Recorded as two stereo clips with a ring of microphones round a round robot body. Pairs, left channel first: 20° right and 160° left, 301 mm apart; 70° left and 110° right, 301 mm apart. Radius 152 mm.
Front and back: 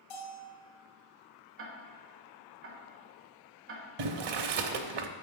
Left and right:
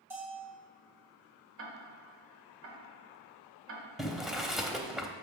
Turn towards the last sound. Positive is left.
turn(degrees=160)